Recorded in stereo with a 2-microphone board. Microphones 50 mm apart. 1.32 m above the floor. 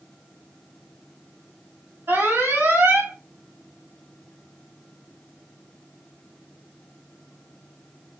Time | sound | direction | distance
2.1 | an alarm | 50° right (ahead or behind) | 1.6 m